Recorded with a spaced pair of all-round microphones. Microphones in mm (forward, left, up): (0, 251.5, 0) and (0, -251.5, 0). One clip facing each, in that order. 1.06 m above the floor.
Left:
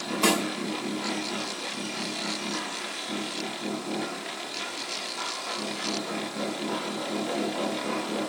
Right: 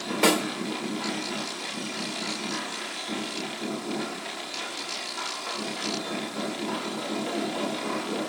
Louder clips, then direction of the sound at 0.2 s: Right 2 dB; 75° right (ahead or behind).